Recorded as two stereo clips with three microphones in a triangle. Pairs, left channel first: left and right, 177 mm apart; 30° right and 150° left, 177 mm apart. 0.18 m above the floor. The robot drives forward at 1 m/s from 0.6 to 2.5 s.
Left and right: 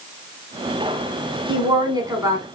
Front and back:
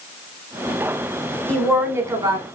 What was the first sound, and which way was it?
A woman speaking, 100° right.